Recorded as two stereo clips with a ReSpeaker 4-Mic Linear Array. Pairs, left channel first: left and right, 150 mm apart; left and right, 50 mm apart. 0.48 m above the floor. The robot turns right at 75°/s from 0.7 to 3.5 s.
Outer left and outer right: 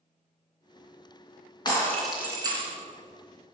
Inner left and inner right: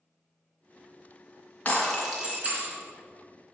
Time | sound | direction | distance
1.6 | breaking glass | 150° left | 3 m